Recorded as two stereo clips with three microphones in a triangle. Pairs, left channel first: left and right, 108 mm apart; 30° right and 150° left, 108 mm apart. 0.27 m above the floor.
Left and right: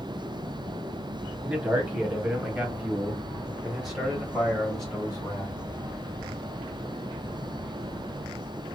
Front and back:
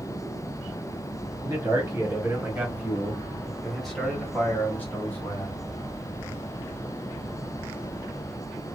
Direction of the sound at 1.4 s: 160° right.